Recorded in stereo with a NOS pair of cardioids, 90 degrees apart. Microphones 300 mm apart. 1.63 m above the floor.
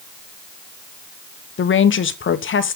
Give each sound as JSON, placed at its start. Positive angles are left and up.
{"t": 1.6, "sound": "a woman speaking", "azimuth_deg": 40, "distance_m": 1.1}